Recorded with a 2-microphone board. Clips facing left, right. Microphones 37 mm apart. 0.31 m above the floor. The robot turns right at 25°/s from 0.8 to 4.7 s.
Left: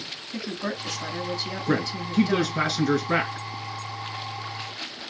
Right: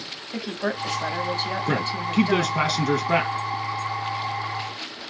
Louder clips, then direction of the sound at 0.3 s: Right 4 dB; 90° right.